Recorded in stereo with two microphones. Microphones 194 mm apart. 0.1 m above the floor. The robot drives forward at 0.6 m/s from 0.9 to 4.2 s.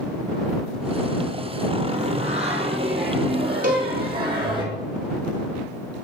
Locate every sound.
1.9 s singing: 35° right (ahead or behind), 2.5 m; by 4.6 s 25° right (ahead or behind), 3.5 m
3.6 s a cowbell: 45° right (ahead or behind), 2.0 m; by 3.9 s 50° right (ahead or behind), 1.9 m